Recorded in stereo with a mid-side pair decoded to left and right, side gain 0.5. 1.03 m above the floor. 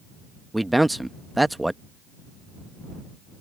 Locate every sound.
0.5 s a man speaking: 5° right